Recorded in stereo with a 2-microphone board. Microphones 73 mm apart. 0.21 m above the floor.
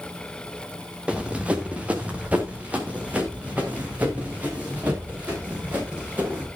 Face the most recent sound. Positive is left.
turn(degrees=-20)  # may be behind; listen again after turning